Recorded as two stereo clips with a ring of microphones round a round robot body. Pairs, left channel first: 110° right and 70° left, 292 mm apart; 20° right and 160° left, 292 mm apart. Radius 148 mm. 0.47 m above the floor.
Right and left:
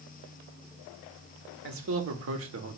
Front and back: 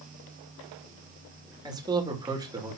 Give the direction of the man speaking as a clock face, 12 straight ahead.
9 o'clock.